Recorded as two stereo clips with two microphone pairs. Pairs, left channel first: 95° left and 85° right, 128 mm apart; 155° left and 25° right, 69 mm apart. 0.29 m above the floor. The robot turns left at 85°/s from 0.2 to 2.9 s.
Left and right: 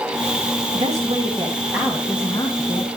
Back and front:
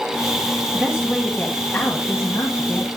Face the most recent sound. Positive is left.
turn(degrees=100)